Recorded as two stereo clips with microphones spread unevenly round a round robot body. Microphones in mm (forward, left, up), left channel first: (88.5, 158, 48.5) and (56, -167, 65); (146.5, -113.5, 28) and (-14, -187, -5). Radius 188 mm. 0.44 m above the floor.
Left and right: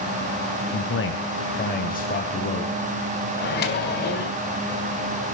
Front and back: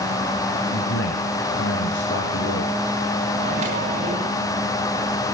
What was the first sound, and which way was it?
A man speaking, 40° left.